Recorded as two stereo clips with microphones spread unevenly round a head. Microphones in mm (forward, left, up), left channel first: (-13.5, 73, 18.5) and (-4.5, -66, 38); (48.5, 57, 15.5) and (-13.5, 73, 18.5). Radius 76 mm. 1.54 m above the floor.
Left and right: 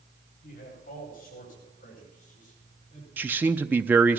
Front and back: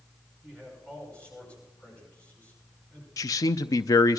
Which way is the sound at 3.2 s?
15° right.